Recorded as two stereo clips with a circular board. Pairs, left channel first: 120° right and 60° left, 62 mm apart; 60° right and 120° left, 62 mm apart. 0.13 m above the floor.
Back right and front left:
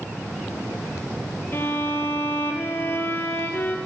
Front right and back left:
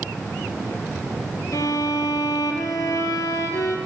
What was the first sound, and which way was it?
A violin, 70° right.